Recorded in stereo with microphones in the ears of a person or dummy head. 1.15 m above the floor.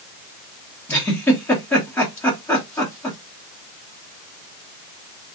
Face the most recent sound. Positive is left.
turn(degrees=5)  # may be behind; listen again after turning